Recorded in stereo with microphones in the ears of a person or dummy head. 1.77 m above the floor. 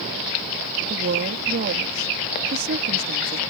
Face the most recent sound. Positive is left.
turn(degrees=-45)  # may be behind; listen again after turning